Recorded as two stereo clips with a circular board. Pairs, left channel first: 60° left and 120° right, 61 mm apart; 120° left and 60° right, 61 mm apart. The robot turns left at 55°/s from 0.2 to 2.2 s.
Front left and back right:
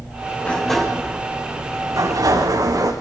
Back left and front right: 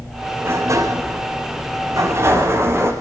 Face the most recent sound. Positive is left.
turn(degrees=-105)